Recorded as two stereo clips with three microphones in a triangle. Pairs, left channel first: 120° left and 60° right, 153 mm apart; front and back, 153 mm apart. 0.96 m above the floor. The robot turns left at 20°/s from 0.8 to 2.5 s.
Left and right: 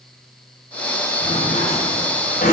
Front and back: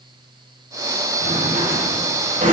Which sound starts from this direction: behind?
A drawer, at 1.2 s.